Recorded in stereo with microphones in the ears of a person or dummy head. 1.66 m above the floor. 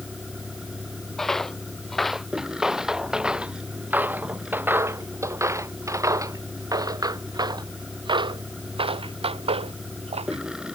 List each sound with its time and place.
0.0 s a vehicle: centre (ahead or behind)
1.2 s footsteps: 5° left (ahead or behind); by 10.4 s 25° right (ahead or behind)